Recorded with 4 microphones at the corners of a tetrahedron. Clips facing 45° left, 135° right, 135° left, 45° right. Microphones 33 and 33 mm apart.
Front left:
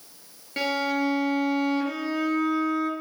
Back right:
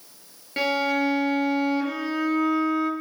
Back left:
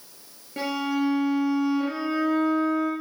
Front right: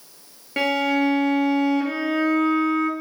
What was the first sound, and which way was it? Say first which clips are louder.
A violin: back right 2 dB, front right 6 dB; 50° right.